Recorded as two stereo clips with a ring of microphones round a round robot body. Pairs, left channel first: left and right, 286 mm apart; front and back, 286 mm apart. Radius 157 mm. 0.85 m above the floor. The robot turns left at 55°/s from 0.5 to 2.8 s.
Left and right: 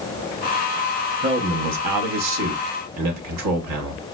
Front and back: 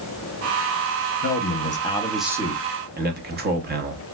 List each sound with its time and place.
1.2 s a man speaking: 35° right, 1.0 m; by 4.0 s 125° right, 1.0 m